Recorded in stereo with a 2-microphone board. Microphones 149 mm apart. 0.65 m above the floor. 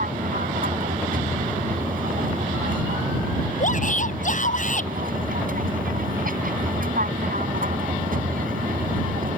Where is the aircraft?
75° right (ahead or behind).